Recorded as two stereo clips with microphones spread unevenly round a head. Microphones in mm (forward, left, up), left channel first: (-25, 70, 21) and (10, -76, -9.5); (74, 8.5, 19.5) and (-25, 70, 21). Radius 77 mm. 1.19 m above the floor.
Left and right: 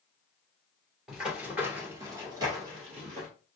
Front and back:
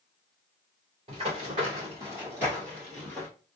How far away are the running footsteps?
About 1.6 m.